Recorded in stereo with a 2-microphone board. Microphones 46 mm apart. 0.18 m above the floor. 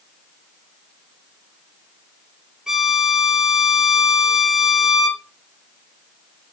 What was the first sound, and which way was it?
A violin, 10° right (ahead or behind).